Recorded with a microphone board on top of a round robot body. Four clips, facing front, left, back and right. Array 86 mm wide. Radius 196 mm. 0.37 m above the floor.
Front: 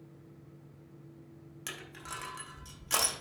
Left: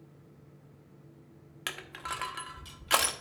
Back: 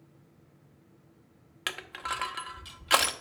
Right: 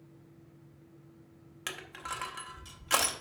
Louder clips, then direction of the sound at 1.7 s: Left 2 dB, back 9 dB; 165° left.